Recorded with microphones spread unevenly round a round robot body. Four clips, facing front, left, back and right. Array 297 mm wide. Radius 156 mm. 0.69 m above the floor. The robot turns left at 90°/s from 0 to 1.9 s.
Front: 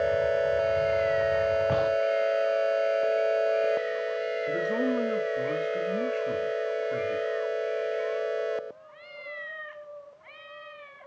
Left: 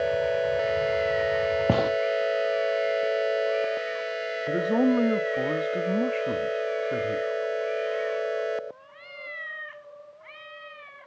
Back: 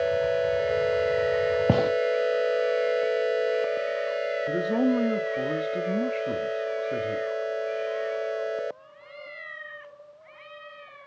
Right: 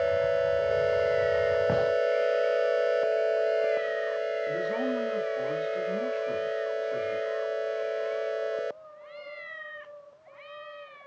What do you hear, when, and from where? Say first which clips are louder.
1.7 s a gunshot: left 2 dB, back 2 dB; 145° left, 1.3 m; by 1.9 s 125° left, 1.3 m
4.5 s a man speaking: left 6 dB, back 4 dB; 120° left, 2 m